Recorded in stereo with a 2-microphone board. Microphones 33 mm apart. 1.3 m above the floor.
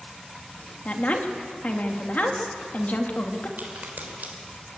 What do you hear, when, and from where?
0.8 s a woman speaking: 50° left (ahead or behind), 2.0 m
3.6 s a crack: 70° right (ahead or behind), 3.5 m